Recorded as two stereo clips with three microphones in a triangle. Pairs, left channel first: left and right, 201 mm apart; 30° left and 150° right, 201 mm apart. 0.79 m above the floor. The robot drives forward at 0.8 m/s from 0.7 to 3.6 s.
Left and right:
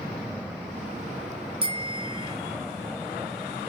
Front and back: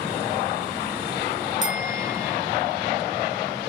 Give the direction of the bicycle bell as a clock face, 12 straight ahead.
5 o'clock.